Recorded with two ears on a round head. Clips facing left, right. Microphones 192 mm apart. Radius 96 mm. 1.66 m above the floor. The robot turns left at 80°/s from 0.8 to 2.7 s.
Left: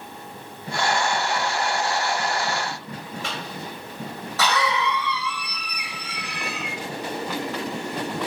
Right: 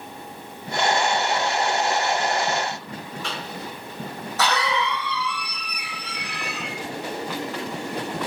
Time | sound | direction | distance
3.2 | a cough | 55° left (ahead or behind) | 1.3 m